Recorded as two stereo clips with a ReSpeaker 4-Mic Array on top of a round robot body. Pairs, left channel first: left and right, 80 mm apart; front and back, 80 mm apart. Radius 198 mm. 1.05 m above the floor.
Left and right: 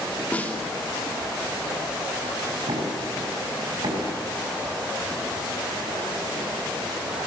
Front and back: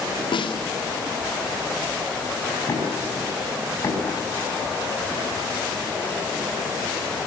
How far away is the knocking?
About 6.5 m.